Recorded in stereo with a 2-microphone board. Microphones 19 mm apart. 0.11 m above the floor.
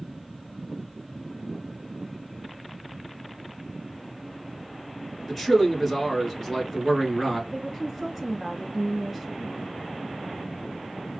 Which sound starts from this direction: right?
A woman speaking, at 7.5 s.